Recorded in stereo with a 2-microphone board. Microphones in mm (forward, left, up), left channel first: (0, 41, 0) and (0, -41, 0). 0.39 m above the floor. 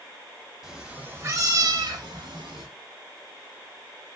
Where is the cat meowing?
5° right (ahead or behind), 0.8 m; by 2.7 s 75° right (ahead or behind), 1.2 m.